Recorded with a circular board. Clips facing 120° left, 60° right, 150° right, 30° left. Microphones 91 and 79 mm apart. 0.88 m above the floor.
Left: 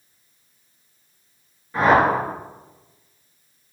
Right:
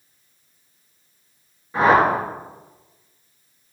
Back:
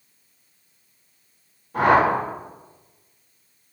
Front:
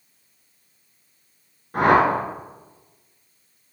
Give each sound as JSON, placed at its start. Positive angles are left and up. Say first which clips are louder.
{"t": 1.7, "sound": "a whoosh", "louder": "right 1 dB, even", "azimuth_deg": 15, "distance_m": 3.0}